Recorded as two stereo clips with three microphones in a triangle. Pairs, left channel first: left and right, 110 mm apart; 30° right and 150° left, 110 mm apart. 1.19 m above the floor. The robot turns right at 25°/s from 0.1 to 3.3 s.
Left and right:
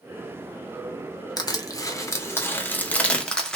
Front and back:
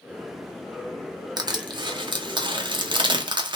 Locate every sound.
1.4 s crushing: 120° left, 0.6 m; by 3.5 s 170° left, 0.6 m